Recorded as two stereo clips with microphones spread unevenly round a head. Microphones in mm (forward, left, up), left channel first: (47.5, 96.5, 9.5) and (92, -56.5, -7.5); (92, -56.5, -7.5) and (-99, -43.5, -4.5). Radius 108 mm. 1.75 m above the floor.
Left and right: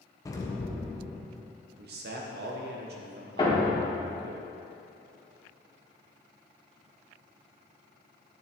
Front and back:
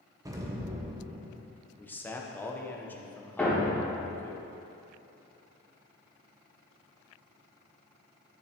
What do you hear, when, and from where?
0.2 s an explosion: 125° left, 0.7 m
1.8 s a man speaking: 85° right, 0.9 m
3.4 s a thud: 80° left, 1.5 m